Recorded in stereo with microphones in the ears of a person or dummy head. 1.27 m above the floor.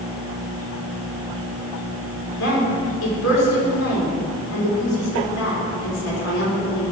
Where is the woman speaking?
65° left (ahead or behind), 3 m.